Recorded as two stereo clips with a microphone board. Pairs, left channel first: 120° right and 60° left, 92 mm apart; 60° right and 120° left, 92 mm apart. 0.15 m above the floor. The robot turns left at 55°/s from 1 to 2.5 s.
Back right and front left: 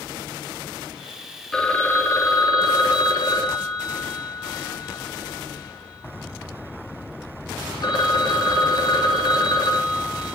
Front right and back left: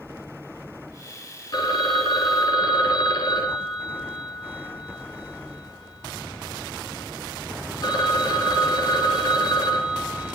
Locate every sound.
1.5 s a phone ringing: 35° right, 1.5 m; by 10.3 s 90° right, 1.5 m